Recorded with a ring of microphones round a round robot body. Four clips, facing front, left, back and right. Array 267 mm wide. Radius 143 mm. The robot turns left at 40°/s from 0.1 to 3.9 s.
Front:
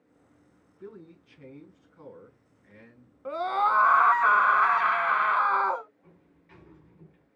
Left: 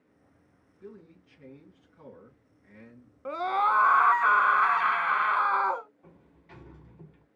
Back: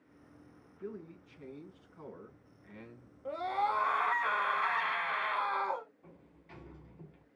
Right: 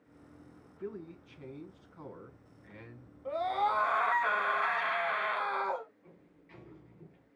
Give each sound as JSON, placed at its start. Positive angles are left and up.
{"t": 0.8, "sound": "a man speaking", "azimuth_deg": -45, "distance_m": 5.5}
{"t": 3.2, "sound": "a scream", "azimuth_deg": 60, "distance_m": 1.2}
{"t": 6.0, "sound": "a sliding door", "azimuth_deg": 115, "distance_m": 2.5}